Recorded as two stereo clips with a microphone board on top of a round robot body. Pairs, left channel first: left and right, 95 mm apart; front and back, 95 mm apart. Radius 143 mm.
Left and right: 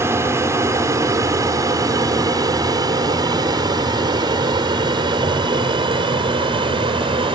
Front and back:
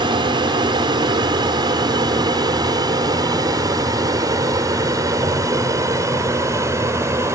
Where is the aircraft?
150° right; by 7.3 s 120° right.